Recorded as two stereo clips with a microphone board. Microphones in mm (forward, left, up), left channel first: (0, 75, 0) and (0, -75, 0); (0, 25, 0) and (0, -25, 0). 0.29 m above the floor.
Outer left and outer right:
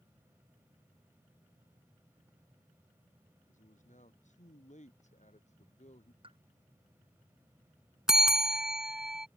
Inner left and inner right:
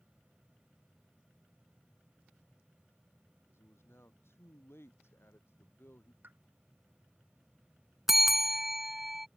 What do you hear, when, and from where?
3.5 s a man speaking: 55° left (ahead or behind); by 6.1 s 50° left (ahead or behind)
6.2 s a pop: 35° right (ahead or behind)
8.1 s a bell: 5° right (ahead or behind)